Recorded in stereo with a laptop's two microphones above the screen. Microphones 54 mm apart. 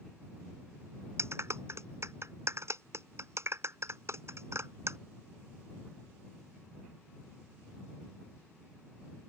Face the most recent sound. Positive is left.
turn(degrees=-55)  # may be behind; listen again after turning